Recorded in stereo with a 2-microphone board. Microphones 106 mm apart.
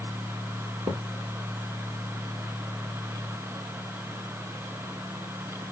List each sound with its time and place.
0.9 s a thud: 65° right (ahead or behind), 1.4 m